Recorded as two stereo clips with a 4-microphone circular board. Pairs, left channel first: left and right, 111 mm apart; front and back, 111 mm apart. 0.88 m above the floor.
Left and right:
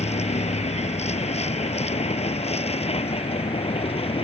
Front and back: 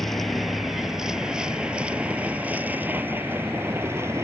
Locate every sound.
0.0 s a vehicle: 90° left; by 4.2 s 115° left